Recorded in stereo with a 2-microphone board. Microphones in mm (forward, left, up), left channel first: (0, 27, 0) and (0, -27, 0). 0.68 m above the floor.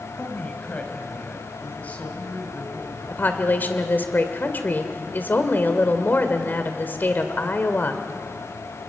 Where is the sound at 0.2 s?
25° left (ahead or behind), 3.5 m.